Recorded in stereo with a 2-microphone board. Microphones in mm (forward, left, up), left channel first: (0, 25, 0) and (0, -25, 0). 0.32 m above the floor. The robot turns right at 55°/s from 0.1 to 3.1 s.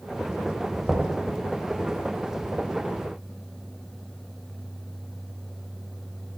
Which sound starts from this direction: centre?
Knocking, at 0.9 s.